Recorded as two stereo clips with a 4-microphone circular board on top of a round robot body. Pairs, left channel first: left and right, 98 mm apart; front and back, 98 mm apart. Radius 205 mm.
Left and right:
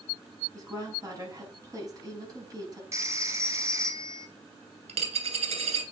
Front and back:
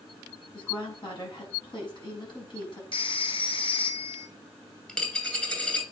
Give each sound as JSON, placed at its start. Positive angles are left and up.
{"t": 0.5, "sound": "a woman speaking", "azimuth_deg": -35, "distance_m": 6.0}
{"t": 2.9, "sound": "a phone ringing", "azimuth_deg": -30, "distance_m": 1.8}
{"t": 4.9, "sound": "a dropped coin", "azimuth_deg": -80, "distance_m": 2.0}